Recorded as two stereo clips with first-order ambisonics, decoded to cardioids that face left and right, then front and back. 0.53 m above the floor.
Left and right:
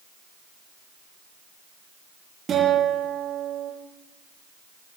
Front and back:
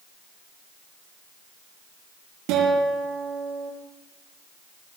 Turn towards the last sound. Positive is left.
turn(degrees=-155)